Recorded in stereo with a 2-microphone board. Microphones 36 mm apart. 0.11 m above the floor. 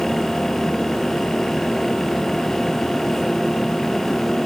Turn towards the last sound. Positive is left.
No sound to turn to.